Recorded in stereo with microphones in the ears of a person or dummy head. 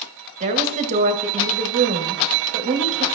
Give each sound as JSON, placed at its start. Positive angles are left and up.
{"t": 0.4, "sound": "a woman speaking", "side_deg": -35, "distance_m": 1.1}